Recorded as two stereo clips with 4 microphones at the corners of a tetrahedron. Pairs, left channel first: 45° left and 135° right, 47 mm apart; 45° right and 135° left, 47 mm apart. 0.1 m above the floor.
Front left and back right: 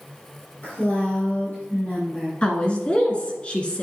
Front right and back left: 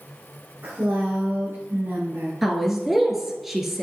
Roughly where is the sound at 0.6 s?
Left.